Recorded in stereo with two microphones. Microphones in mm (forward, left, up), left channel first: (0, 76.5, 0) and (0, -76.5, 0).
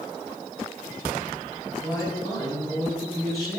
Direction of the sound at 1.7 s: 25° left (ahead or behind).